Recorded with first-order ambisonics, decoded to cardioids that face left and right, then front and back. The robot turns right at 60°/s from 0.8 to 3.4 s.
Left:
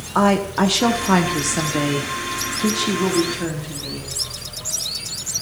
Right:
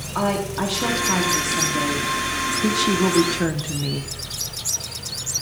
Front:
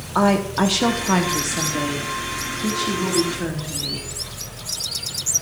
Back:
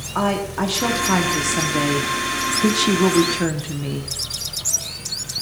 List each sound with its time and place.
0.1 s a woman speaking: 65° left, 0.9 m; by 4.1 s 140° right, 0.9 m